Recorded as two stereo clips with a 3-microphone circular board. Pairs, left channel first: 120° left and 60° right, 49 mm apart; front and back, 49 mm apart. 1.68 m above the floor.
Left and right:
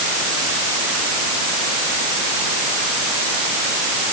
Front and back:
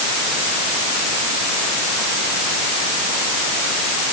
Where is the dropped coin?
I don't hear a dropped coin.